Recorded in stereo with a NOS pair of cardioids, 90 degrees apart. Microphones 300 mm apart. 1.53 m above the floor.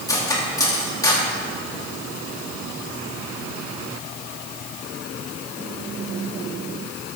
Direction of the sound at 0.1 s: 10° left.